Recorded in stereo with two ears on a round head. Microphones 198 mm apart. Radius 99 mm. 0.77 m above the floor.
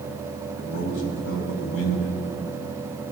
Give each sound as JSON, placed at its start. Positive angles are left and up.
{"t": 0.6, "sound": "a man speaking", "side_deg": 65, "distance_m": 4.5}